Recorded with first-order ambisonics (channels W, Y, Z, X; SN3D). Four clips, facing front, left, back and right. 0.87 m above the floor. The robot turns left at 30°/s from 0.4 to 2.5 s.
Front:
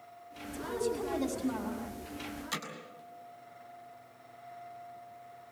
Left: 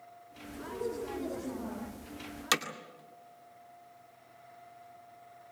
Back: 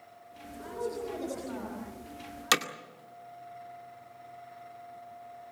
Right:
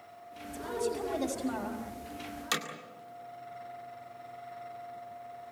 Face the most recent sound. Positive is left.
turn(degrees=165)